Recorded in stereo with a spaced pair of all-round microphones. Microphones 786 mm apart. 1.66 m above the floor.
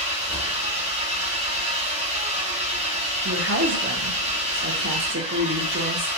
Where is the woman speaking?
20° right (ahead or behind), 0.6 m.